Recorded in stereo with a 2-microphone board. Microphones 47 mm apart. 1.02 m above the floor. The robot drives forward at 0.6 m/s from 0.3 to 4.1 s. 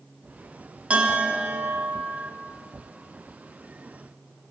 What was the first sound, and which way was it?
A bell, 30° right (ahead or behind).